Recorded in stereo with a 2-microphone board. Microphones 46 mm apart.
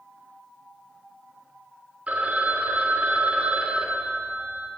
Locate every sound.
2.1 s a phone ringing: 30° right (ahead or behind), 0.5 m